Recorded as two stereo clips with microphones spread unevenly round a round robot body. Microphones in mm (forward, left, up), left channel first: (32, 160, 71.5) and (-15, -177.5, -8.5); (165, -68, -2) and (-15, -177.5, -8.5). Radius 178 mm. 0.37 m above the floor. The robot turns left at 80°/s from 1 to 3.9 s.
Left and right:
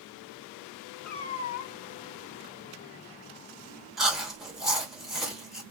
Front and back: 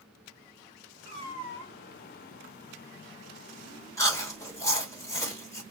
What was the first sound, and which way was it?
A cat meowing, 170° left.